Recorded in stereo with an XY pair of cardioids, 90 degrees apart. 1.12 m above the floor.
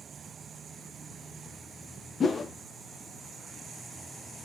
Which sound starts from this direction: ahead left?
A whoosh, at 2.2 s.